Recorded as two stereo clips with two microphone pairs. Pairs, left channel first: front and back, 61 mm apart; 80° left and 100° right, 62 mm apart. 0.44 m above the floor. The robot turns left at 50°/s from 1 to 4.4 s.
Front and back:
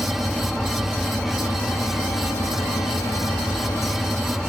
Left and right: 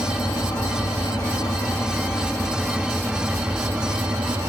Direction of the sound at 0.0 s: 90° left.